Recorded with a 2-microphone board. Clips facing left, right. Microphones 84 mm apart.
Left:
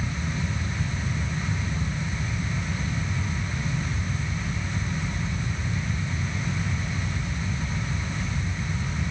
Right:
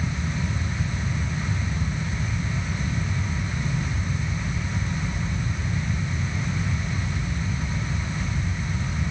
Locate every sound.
Only background noise.